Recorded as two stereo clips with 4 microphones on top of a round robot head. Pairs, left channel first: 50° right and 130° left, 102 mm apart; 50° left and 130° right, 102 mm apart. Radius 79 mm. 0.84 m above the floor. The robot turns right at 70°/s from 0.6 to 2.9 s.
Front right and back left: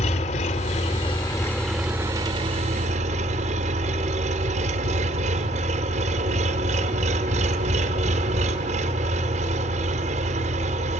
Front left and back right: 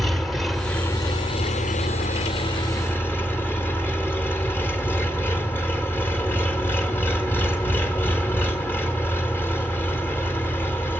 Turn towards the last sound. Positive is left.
turn(degrees=120)